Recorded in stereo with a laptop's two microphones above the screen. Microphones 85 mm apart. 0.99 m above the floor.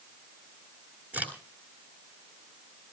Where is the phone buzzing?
I don't hear a phone buzzing.